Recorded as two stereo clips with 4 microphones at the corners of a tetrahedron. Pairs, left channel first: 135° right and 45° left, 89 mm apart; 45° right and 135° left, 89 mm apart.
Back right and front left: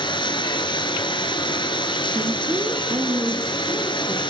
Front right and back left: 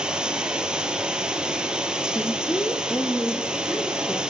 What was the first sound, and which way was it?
Running water, 145° right.